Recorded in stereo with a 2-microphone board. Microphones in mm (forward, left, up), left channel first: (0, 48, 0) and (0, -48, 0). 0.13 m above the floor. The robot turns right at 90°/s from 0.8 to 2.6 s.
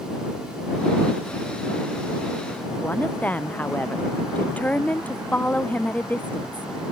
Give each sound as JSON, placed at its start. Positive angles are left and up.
{"t": 2.8, "sound": "a woman speaking", "side_deg": 15}